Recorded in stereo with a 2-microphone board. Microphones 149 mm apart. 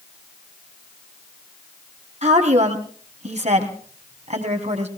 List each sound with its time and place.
2.2 s a woman speaking: 50° right (ahead or behind), 3 m